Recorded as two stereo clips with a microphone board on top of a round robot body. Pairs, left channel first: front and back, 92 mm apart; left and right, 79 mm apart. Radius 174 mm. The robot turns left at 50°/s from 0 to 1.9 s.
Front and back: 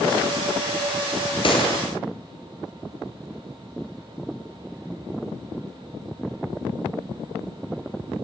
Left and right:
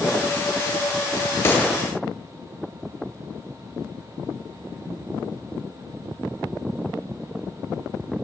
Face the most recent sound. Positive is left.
turn(degrees=5)